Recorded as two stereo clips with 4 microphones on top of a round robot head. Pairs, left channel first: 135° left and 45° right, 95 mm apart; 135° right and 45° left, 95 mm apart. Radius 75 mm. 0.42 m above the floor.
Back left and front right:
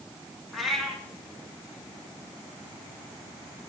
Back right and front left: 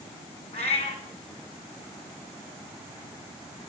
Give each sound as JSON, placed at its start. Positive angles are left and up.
{"t": 0.5, "sound": "a cat meowing", "azimuth_deg": -135, "distance_m": 2.5}